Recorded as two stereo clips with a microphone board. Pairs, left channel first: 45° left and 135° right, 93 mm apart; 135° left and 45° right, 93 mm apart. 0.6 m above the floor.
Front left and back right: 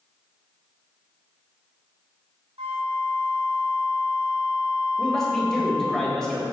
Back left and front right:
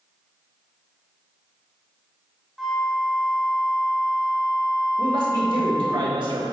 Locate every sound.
2.6 s a flute: 135° right, 1.2 m
5.0 s a man speaking: 40° right, 2 m